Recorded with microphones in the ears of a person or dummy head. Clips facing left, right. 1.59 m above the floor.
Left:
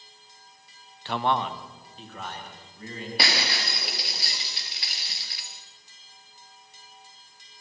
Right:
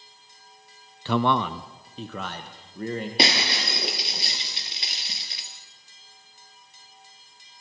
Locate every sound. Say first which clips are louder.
1.1 s a man speaking: right 4 dB; 75° right (ahead or behind), 0.5 m; by 3.1 s 50° right (ahead or behind), 2.0 m
3.2 s breaking glass: right 3 dB; 20° right (ahead or behind), 1.8 m